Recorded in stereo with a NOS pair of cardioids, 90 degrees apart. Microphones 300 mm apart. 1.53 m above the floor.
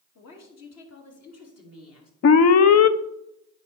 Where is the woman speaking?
60° left, 3 m; by 2.1 s 55° left, 4 m.